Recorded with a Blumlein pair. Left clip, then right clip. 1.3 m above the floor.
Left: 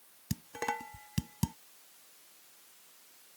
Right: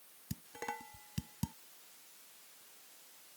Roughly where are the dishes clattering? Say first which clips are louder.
Left 7 dB; left.